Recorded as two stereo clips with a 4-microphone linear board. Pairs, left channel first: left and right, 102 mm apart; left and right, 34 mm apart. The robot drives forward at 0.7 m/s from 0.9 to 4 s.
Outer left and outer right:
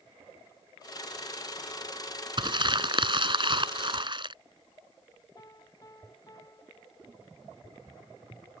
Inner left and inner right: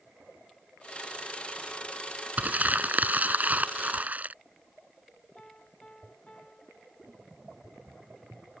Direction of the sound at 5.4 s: 35° left (ahead or behind).